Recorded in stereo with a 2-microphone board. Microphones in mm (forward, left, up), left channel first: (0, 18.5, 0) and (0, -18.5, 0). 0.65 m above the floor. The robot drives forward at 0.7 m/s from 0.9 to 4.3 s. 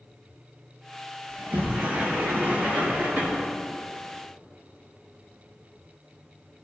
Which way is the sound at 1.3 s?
60° right (ahead or behind).